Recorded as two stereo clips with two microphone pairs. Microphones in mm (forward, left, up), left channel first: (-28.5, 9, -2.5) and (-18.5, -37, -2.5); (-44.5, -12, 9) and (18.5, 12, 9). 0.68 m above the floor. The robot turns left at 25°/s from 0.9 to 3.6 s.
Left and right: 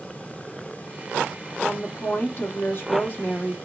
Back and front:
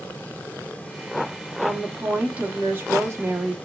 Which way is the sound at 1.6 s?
105° left.